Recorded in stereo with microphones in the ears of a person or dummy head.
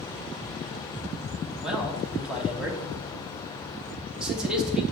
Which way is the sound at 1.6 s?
5° left (ahead or behind).